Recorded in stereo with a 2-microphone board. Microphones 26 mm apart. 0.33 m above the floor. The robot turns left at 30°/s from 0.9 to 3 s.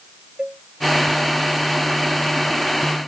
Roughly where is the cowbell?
Right.